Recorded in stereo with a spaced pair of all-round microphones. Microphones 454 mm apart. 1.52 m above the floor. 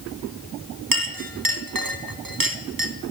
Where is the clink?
50° right (ahead or behind), 1.1 m.